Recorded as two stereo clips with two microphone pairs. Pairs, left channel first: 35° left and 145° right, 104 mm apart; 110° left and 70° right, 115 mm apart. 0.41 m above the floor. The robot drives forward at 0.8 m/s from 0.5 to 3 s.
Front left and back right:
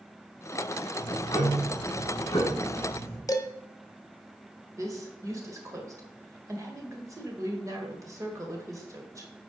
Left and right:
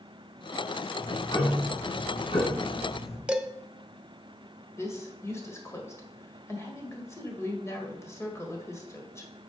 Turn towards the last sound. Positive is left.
turn(degrees=165)